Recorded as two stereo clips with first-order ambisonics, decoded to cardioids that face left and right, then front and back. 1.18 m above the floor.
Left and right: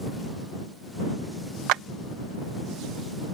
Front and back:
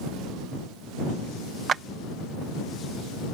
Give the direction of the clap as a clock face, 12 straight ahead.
4 o'clock.